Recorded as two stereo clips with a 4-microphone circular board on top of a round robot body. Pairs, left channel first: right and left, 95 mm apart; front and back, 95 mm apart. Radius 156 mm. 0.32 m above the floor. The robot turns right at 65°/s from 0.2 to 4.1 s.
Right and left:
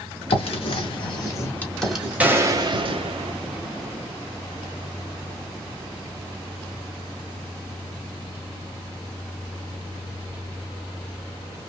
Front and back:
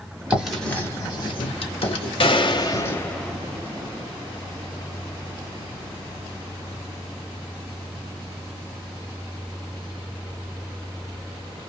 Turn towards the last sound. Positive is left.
turn(degrees=140)